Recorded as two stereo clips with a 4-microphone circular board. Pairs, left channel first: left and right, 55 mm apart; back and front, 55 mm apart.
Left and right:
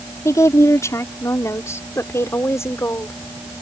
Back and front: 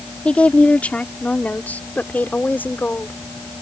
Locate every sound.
0.2 s a woman speaking: 115° left; by 3.2 s 125° left